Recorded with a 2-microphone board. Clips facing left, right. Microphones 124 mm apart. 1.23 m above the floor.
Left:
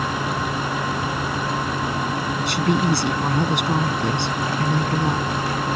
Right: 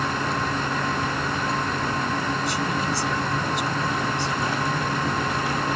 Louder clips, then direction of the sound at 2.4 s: Left 5 dB; 70° left (ahead or behind).